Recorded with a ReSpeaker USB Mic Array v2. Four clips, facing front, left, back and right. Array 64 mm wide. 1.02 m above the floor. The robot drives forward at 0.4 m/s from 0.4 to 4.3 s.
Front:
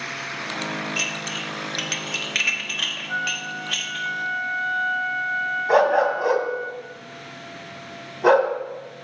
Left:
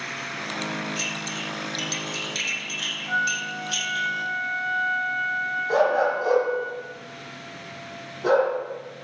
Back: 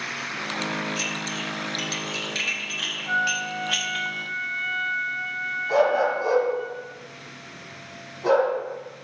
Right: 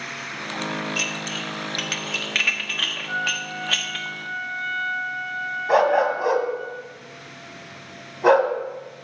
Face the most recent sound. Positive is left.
turn(degrees=-50)